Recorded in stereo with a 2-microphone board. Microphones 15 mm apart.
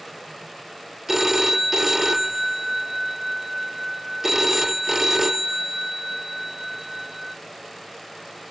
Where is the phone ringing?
15° right (ahead or behind), 0.8 m.